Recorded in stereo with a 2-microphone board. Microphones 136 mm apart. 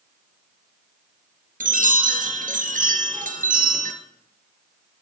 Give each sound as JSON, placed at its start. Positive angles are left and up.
{"t": 1.6, "sound": "a chime", "side_deg": -85, "distance_m": 2.0}